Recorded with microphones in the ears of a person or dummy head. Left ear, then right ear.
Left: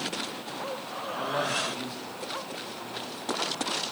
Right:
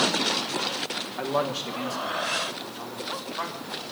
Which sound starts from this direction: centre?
A man speaking, at 1.2 s.